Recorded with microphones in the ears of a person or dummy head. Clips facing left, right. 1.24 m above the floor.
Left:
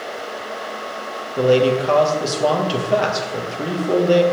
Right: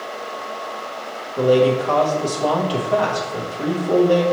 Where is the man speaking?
25° left (ahead or behind), 0.8 m.